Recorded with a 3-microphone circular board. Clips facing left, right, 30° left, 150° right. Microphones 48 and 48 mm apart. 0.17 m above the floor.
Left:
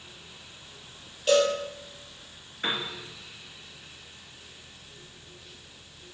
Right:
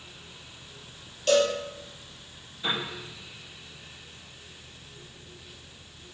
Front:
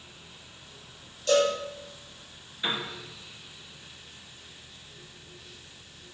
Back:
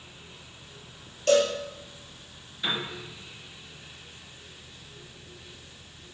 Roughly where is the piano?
Left.